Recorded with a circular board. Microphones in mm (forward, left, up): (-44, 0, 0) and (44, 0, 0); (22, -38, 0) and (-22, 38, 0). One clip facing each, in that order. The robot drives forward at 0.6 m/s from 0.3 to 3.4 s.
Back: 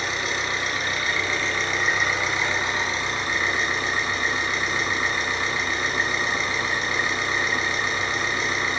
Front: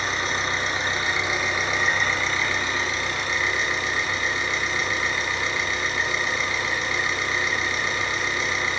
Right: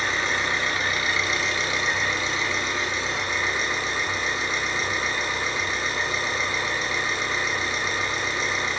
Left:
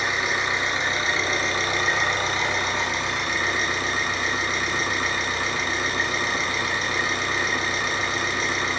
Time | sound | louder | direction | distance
0.0 | an engine running | front 1 dB, left 1 dB | 45° left | 1.2 m